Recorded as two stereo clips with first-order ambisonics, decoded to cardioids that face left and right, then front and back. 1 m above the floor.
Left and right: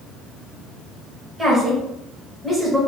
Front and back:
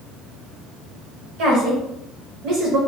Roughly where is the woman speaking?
Behind.